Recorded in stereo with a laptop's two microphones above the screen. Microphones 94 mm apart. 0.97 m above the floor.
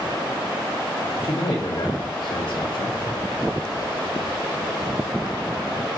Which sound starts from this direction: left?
A man speaking, at 1.2 s.